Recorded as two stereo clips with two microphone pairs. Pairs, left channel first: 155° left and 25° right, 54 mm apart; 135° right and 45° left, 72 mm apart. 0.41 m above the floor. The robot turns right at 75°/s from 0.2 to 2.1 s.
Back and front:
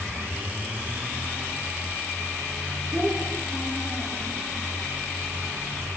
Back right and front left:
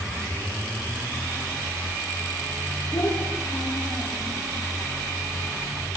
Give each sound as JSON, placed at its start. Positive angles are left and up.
{"t": 2.9, "sound": "a child speaking", "azimuth_deg": -90, "distance_m": 8.0}